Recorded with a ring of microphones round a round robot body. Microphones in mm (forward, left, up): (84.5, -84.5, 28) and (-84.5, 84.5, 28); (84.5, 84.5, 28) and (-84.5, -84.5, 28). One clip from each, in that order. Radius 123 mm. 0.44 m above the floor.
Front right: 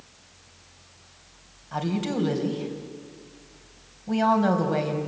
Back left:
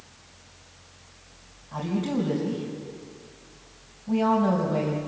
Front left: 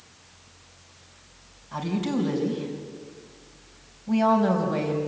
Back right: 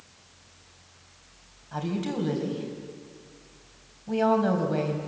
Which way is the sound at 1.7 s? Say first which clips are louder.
Front right 1 dB, front left 3 dB; 55° right.